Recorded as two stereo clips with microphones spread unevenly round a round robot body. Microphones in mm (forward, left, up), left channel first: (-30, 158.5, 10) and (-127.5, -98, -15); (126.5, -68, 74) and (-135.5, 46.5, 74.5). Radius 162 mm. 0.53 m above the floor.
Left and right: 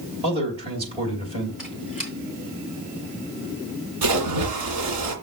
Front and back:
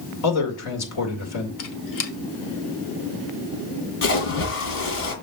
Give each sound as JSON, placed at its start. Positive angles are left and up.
{"t": 0.2, "sound": "a man speaking", "azimuth_deg": -40, "distance_m": 2.5}
{"t": 1.6, "sound": "a squeak", "azimuth_deg": -25, "distance_m": 1.2}
{"t": 4.0, "sound": "a splash", "azimuth_deg": -70, "distance_m": 2.0}